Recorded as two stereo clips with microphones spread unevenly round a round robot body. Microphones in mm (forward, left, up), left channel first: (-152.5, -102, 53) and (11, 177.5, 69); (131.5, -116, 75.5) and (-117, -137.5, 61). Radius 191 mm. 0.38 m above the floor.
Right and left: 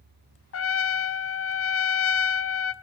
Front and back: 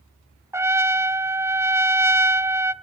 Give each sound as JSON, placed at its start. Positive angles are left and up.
{"t": 0.5, "sound": "a trumpet", "azimuth_deg": -100, "distance_m": 0.7}